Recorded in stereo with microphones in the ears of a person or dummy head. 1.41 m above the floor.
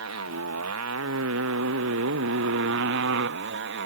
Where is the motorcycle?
80° right; by 3.9 s 60° right (ahead or behind).